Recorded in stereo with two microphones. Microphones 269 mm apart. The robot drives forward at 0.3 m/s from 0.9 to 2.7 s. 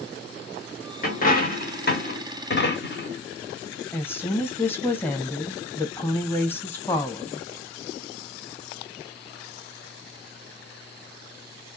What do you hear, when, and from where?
1.0 s a dropped coin: 30° left (ahead or behind), 0.9 m; by 3.2 s 40° left (ahead or behind), 0.7 m
3.9 s a woman speaking: 10° left (ahead or behind), 0.5 m